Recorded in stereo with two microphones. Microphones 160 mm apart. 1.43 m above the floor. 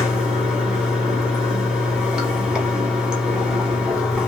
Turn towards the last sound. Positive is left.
turn(degrees=-5)  # may be behind; listen again after turning